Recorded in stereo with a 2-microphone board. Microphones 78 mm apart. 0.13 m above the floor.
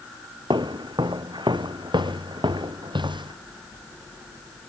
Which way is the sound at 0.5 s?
75° right (ahead or behind).